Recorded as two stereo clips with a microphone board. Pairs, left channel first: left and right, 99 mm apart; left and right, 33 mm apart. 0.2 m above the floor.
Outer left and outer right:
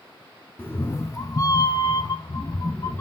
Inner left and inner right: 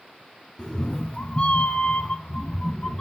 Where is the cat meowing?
20° left (ahead or behind), 0.7 m; by 3.0 s 30° left (ahead or behind), 0.9 m.